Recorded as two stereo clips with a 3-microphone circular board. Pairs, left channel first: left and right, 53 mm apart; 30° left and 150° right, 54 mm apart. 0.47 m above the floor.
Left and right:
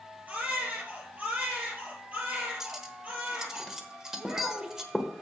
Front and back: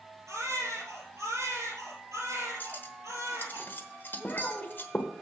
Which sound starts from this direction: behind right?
A baby crying, at 0.3 s.